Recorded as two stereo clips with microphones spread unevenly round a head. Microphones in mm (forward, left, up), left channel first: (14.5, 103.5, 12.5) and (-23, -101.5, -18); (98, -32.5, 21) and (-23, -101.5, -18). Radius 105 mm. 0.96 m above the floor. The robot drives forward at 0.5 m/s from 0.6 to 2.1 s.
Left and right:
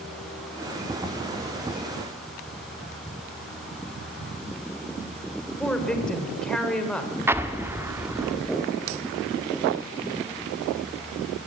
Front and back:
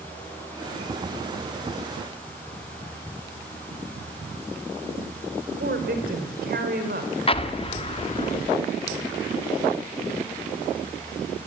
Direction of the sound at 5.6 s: 165° left.